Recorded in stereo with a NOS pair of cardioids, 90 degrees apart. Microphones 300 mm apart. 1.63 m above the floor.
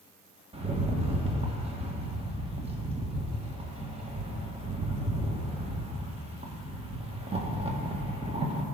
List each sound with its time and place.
0.5 s a rattle: 20° right, 1.5 m